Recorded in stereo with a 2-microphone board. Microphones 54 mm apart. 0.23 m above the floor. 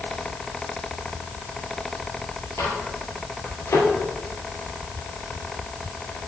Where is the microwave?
70° left (ahead or behind), 3.5 m.